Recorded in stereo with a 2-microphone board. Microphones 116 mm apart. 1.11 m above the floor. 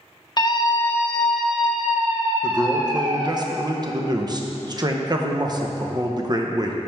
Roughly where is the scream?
Left.